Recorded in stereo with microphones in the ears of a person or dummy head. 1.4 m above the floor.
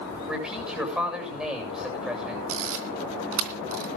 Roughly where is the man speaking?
Centre.